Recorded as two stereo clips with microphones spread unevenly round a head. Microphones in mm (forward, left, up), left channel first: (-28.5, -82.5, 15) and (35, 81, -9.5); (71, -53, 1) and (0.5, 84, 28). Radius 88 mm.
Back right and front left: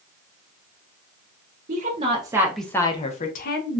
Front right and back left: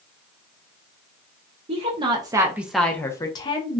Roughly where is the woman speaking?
Ahead left.